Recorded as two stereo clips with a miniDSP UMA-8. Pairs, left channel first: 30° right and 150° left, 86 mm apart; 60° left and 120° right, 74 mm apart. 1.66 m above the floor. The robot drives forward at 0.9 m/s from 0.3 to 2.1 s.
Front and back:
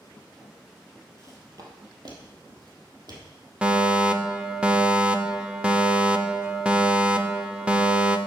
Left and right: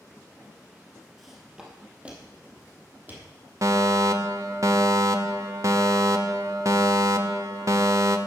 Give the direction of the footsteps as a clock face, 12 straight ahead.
7 o'clock.